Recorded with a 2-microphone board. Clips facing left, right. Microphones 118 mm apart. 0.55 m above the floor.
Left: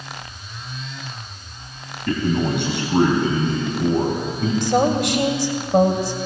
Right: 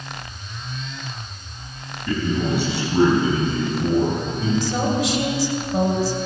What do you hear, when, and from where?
2.1 s a man speaking: 60° left (ahead or behind), 4 m; by 4.5 s 55° left (ahead or behind), 5.5 m
4.6 s a woman speaking: 65° left (ahead or behind), 2.5 m